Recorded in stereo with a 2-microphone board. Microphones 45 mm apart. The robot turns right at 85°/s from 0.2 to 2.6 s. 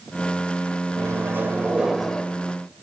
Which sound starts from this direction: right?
A microwave, at 1.0 s.